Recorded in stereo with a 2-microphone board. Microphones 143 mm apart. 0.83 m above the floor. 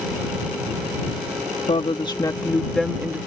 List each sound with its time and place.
1.7 s a woman speaking: 45° left (ahead or behind); by 3.2 s 15° right (ahead or behind)